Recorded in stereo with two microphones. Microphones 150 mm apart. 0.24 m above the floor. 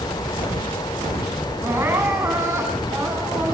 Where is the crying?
15° right (ahead or behind), 5.5 m.